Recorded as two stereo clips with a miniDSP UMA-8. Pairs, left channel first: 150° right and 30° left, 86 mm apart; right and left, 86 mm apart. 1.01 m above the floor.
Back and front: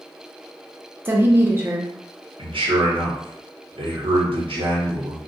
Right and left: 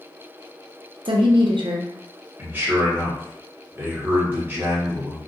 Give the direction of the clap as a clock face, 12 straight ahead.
No clap in this recording.